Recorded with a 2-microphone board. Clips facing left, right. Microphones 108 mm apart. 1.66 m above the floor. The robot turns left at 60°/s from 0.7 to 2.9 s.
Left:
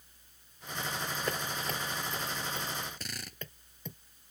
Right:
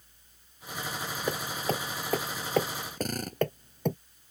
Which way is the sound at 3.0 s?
45° right (ahead or behind).